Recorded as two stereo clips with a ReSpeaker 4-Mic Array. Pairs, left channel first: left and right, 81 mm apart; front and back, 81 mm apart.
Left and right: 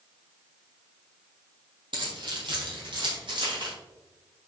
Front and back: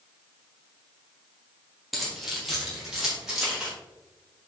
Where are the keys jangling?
90° right, 3.5 m; by 3.7 s 95° right, 5 m.